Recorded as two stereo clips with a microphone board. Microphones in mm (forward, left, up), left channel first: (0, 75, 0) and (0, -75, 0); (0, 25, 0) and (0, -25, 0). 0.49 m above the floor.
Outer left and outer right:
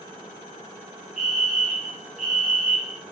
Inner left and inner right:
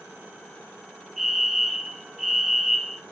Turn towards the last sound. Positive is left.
turn(degrees=-5)  # may be behind; listen again after turning